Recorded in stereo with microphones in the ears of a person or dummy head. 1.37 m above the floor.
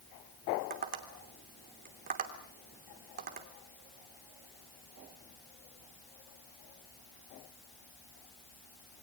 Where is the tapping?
45° right (ahead or behind), 3 m.